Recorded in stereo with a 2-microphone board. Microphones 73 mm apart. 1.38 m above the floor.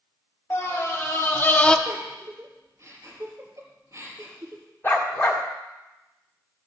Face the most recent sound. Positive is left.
turn(degrees=25)  # may be behind; listen again after turning